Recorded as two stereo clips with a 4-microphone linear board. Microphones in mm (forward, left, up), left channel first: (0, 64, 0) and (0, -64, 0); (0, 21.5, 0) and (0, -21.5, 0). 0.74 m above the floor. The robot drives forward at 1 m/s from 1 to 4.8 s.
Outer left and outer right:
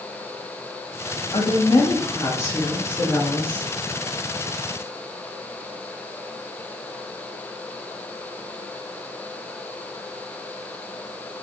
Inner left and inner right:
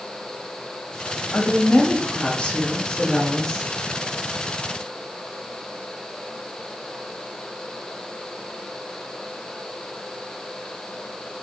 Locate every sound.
1.3 s a woman speaking: 40° left (ahead or behind), 1.1 m; by 3.7 s 15° left (ahead or behind), 3 m